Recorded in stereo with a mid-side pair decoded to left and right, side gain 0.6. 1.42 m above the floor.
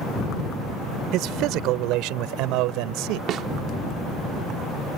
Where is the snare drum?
55° right.